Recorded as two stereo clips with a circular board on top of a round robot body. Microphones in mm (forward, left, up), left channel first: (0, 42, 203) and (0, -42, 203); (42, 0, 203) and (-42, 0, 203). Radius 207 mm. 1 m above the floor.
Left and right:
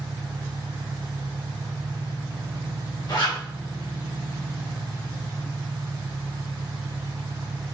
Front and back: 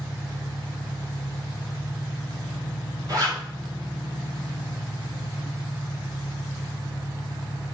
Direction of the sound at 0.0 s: 95° left.